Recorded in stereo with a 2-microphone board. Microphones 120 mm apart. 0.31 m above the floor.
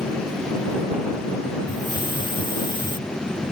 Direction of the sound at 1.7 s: 40° left (ahead or behind).